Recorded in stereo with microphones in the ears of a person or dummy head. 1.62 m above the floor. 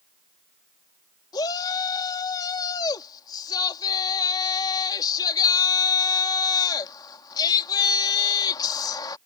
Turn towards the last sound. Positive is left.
turn(degrees=25)  # may be behind; listen again after turning